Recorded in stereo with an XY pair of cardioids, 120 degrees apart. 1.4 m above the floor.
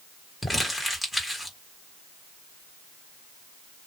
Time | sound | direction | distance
0.4 | crumpling | 5° left | 1.3 m